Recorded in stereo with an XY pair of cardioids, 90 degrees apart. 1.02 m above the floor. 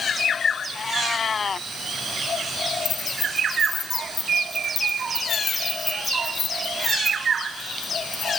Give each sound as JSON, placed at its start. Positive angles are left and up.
{"t": 0.8, "sound": "a cat meowing", "azimuth_deg": 45}
{"t": 2.9, "sound": "keys jangling", "azimuth_deg": 60}